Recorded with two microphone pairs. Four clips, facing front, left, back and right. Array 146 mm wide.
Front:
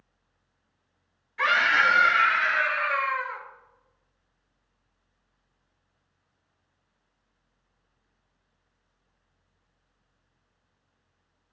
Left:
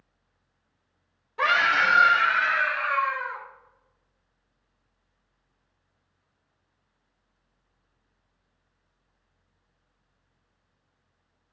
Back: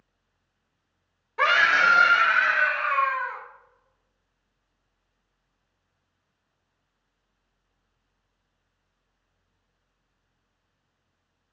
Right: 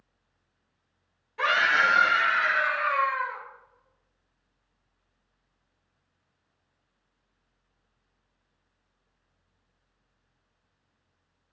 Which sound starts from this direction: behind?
A scream, at 1.4 s.